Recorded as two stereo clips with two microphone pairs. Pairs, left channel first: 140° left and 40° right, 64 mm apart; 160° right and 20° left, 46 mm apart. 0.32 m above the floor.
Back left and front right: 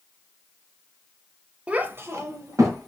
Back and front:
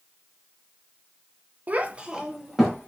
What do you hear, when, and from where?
1.7 s a child speaking: 20° left, 0.6 m; by 2.9 s 65° right, 1.1 m